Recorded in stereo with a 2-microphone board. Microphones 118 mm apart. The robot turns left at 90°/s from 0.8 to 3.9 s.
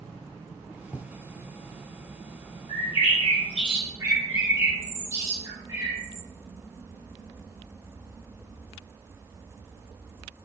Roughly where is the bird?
Left.